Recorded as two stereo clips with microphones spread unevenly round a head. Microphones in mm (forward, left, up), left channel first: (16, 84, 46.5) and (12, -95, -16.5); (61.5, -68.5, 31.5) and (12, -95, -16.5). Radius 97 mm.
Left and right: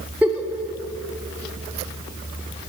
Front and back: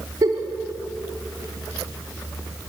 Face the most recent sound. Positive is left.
turn(degrees=-175)